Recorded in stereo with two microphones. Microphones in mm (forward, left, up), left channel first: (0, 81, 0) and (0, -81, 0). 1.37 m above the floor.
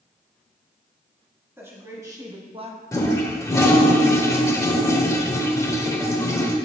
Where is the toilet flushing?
20° left (ahead or behind), 1.1 m.